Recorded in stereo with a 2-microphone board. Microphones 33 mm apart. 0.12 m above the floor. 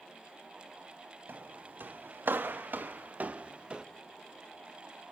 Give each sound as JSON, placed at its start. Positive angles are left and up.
{"t": 1.3, "sound": "footsteps", "side_deg": -70, "distance_m": 1.3}